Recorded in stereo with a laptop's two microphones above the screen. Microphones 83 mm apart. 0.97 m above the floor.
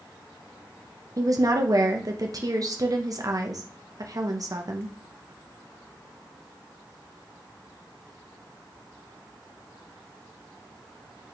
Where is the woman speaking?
45° right (ahead or behind), 0.6 m.